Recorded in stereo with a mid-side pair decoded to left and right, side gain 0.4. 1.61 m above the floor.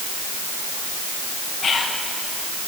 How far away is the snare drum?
No snare drum in this recording.